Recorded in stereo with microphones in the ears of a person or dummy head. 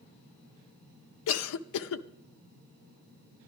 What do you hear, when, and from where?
1.3 s a cough: 85° left, 0.6 m